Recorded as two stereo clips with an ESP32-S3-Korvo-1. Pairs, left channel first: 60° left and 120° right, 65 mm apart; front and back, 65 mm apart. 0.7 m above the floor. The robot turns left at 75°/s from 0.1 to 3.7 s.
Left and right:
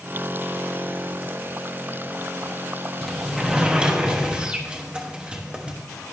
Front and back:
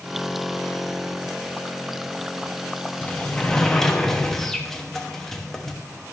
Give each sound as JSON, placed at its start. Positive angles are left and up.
{"t": 3.0, "sound": "a sliding door", "azimuth_deg": -25, "distance_m": 1.0}